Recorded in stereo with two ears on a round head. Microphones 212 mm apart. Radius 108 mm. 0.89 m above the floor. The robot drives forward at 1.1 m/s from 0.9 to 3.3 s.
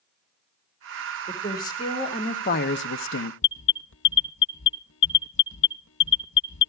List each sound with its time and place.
1.3 s a woman speaking: 15° left (ahead or behind), 2 m; by 3.3 s 50° left (ahead or behind), 0.7 m
3.4 s an alarm: 50° left (ahead or behind), 0.6 m